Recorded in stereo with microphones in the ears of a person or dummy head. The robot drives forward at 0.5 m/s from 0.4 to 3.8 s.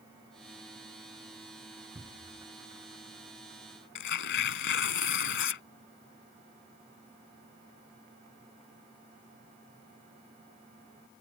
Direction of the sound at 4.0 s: 65° left (ahead or behind).